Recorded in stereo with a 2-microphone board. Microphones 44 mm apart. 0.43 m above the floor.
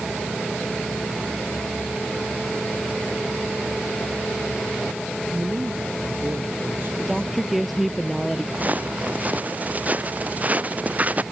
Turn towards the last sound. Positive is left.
turn(degrees=-35)  # may be behind; listen again after turning